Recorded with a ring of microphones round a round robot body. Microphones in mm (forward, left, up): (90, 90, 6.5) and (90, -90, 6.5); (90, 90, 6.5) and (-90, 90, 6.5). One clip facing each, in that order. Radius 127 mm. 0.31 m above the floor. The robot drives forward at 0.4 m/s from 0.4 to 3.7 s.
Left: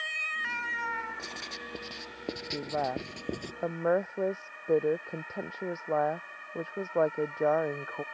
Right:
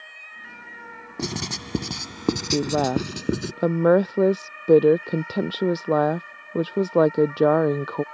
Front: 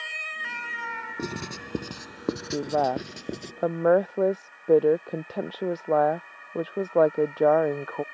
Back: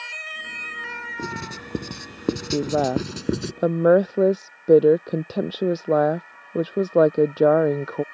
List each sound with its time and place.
1.2 s writing: 85° right; by 3.5 s 135° right
2.5 s a woman speaking: 115° right